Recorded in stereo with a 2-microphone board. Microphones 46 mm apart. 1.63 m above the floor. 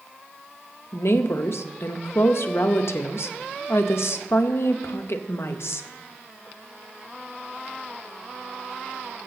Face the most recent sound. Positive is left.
turn(degrees=65)  # may be behind; listen again after turning